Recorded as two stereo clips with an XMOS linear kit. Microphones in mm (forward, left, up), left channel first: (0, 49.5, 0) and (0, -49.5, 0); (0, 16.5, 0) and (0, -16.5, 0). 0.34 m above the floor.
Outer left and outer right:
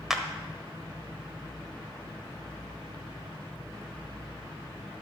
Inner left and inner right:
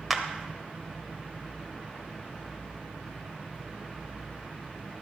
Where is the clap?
5° right (ahead or behind), 1.1 m.